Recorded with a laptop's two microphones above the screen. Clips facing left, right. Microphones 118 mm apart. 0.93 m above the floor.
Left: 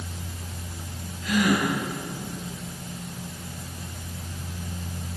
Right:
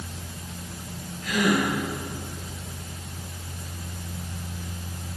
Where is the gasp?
50° right (ahead or behind), 9.5 m.